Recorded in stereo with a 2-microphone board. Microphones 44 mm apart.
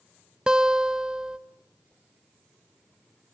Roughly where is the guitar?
Centre.